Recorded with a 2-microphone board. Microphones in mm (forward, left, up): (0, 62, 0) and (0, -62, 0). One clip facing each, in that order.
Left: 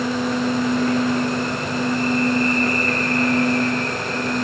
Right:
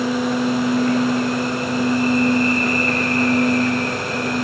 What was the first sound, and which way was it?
Only background noise.